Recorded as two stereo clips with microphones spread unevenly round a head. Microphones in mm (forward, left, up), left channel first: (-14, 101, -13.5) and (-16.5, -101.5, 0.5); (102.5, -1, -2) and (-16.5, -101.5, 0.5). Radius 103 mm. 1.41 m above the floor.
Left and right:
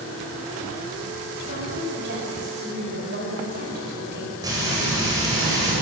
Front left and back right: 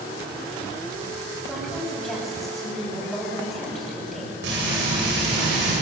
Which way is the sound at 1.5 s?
50° right.